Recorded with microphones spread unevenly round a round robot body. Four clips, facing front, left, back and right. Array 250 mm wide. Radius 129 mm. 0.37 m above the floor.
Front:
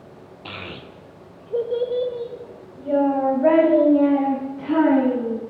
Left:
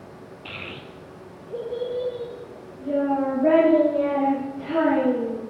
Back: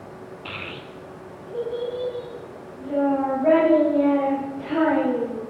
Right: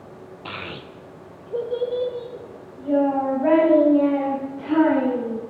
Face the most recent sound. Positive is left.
turn(degrees=0)